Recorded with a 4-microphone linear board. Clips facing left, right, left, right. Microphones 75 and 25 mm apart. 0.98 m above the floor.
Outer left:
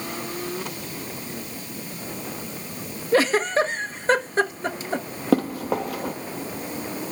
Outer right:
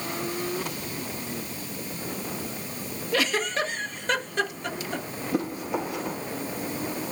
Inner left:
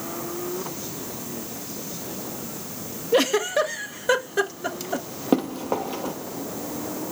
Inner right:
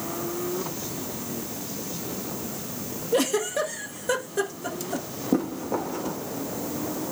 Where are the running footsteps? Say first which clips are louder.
Outer left 7 dB, inner left 3 dB; 75° left (ahead or behind), 5.5 m.